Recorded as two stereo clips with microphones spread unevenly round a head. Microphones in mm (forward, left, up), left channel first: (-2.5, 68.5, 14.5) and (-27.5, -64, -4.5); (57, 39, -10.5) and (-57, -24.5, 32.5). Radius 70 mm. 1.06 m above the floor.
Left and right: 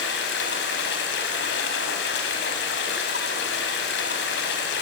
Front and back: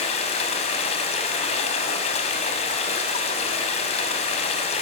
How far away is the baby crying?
No baby crying in this recording.